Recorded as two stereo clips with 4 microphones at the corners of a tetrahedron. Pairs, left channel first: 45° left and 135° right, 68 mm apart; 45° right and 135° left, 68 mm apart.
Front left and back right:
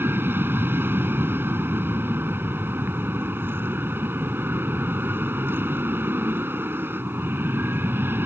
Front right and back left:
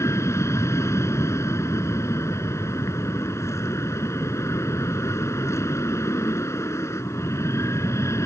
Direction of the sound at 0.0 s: 85° right.